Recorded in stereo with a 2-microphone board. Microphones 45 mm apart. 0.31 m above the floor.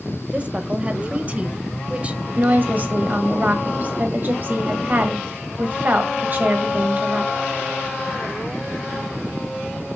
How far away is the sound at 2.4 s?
About 1.5 m.